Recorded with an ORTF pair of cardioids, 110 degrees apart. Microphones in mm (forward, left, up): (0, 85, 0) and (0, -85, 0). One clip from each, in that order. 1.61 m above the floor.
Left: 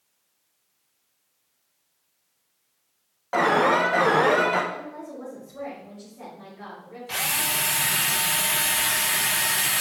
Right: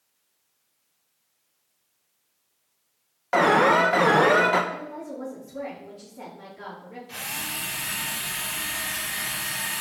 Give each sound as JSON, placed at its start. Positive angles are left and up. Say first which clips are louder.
{"t": 3.3, "sound": "an alarm", "louder": "right 2 dB", "azimuth_deg": -25, "distance_m": 1.4}
{"t": 4.7, "sound": "a woman speaking", "louder": "right 1 dB", "azimuth_deg": -50, "distance_m": 4.5}
{"t": 7.1, "sound": "a drill", "louder": "left 7 dB", "azimuth_deg": 50, "distance_m": 1.1}